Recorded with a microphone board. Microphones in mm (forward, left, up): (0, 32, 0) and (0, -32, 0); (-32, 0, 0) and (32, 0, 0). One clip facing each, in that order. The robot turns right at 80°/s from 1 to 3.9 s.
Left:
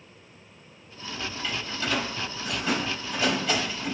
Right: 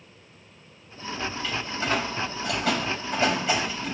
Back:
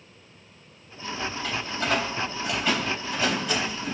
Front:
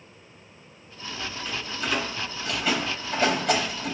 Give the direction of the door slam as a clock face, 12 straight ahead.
6 o'clock.